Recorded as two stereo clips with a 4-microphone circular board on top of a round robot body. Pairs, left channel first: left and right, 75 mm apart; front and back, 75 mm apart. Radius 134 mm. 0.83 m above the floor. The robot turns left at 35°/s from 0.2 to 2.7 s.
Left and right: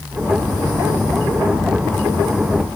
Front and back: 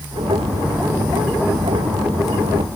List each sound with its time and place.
Only background noise.